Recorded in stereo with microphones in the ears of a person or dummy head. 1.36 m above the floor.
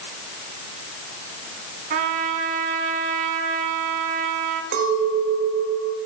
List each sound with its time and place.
1.9 s a trumpet: 45° right (ahead or behind), 1.9 m
4.7 s a clink: 65° right (ahead or behind), 3 m